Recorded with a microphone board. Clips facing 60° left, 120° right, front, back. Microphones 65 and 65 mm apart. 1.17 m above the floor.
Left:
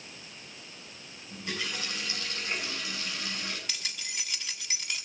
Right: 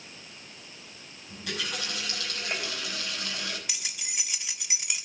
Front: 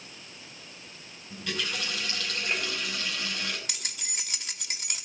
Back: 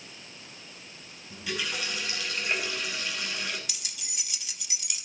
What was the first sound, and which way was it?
A running tap, 100° right.